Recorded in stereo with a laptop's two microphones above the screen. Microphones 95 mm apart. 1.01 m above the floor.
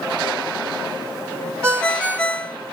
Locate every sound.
1.6 s a ringtone: 10° left (ahead or behind), 1.2 m